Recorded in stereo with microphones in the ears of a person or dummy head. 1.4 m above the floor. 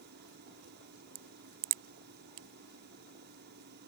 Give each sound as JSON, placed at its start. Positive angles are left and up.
{"t": 0.0, "sound": "a fan", "side_deg": -55}
{"t": 1.1, "sound": "a crack", "side_deg": -50}